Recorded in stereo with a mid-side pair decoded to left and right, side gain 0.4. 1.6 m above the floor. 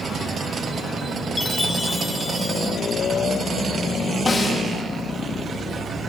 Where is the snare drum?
35° left, 1.3 m.